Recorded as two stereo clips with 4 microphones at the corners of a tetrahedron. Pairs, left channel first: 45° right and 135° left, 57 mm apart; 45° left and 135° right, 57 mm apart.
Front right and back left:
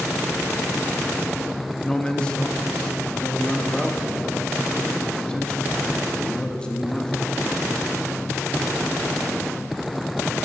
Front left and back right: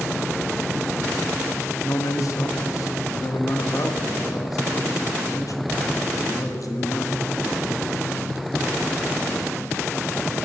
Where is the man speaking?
30° left, 1.0 m.